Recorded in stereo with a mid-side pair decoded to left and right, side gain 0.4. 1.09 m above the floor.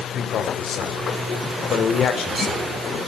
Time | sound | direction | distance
0.1 | a man speaking | 65° left | 3 m